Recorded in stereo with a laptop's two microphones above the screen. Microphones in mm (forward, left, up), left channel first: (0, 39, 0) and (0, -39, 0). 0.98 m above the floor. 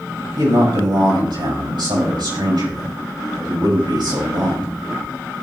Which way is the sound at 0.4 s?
80° right.